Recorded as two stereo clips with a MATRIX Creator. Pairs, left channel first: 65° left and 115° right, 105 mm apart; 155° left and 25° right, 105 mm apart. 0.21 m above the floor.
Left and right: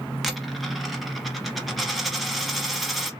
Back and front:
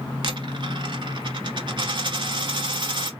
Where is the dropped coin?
25° right, 0.8 m.